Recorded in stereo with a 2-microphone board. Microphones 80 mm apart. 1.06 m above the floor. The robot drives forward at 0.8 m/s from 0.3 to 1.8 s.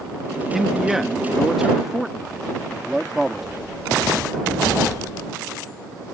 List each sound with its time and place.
0.5 s a man speaking: 5° right (ahead or behind); by 3.6 s centre (ahead or behind)